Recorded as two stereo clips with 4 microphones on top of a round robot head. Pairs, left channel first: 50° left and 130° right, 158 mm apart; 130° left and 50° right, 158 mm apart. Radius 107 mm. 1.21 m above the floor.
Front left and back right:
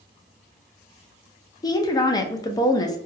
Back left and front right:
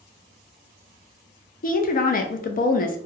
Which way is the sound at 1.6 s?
115° left.